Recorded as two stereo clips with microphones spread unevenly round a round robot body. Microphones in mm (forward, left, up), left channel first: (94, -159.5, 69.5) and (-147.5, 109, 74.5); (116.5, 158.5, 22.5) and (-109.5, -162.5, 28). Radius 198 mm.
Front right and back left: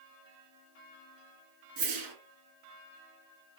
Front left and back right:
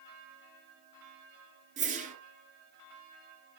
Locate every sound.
1.8 s a whoosh: 160° left, 2.5 m